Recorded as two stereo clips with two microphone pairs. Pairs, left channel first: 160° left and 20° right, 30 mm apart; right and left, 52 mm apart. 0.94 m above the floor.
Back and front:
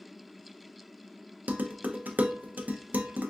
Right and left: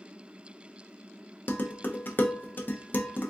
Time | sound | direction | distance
1.5 | dishes clattering | 35° right | 0.6 m